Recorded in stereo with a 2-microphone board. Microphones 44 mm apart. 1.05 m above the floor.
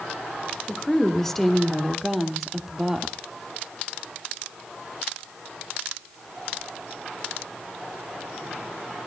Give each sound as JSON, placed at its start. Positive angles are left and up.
{"t": 0.7, "sound": "a woman speaking", "side_deg": 10, "distance_m": 3.0}